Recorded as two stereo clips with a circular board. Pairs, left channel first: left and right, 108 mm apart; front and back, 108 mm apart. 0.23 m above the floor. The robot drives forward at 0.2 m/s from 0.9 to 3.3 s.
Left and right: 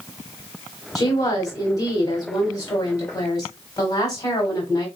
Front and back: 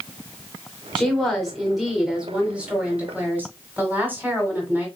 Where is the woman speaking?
75° left, 1.2 m; by 4.9 s 115° left, 1.2 m.